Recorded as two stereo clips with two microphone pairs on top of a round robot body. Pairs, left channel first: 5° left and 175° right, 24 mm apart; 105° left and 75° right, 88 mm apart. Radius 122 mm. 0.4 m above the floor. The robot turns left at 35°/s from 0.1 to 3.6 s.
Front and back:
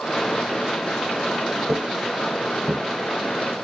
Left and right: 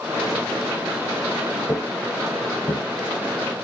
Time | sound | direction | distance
1.7 | footsteps | 175° left | 0.6 m